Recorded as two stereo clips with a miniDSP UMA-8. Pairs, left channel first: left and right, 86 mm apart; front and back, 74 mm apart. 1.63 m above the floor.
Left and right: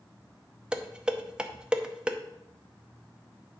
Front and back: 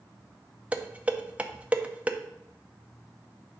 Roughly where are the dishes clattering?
Behind right.